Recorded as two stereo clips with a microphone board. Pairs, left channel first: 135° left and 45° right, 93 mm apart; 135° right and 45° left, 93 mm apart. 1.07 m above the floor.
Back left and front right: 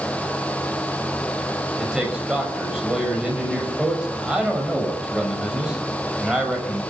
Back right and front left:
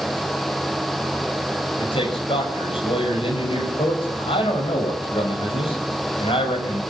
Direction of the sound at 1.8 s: 130° right.